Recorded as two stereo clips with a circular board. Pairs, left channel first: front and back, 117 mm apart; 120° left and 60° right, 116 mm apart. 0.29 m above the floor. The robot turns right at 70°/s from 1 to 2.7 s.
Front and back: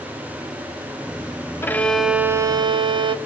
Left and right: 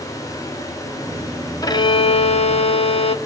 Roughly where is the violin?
Ahead left.